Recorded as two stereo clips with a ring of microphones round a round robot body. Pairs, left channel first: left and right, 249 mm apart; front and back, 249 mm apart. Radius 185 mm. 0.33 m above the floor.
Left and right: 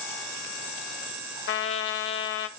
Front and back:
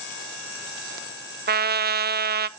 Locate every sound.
1.5 s a trumpet: 130° left, 0.6 m